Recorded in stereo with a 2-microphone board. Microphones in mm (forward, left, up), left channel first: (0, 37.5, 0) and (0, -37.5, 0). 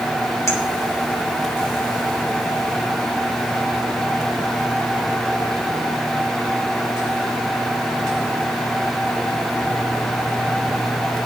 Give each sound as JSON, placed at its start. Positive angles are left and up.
{"t": 0.5, "sound": "a clink", "side_deg": 40, "distance_m": 4.0}